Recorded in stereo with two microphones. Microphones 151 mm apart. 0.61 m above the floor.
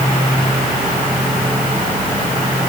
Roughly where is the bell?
No bell in this recording.